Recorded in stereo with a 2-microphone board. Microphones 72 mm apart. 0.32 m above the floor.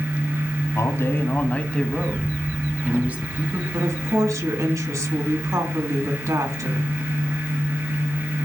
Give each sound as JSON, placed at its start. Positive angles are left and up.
{"t": 0.8, "sound": "a man speaking", "side_deg": 40, "distance_m": 2.0}
{"t": 3.7, "sound": "a woman speaking", "side_deg": -50, "distance_m": 3.5}